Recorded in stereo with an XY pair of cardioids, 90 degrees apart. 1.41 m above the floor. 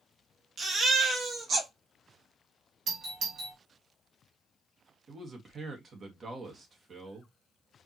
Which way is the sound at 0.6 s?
65° right.